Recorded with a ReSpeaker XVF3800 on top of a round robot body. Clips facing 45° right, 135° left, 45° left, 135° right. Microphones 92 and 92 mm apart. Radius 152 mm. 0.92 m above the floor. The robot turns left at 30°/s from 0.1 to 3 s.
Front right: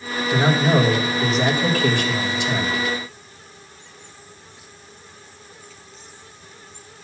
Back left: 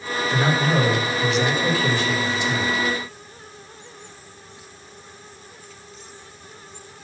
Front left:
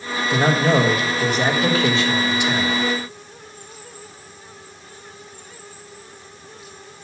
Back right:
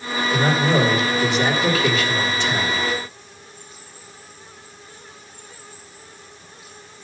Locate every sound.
0.3 s a man speaking: 30° left, 1.5 m; by 2.8 s 45° right, 1.5 m